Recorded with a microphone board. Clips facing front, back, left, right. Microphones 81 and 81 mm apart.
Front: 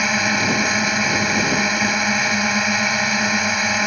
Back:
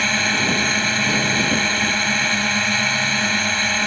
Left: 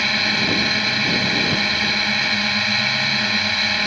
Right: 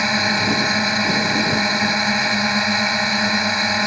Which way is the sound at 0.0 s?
65° right.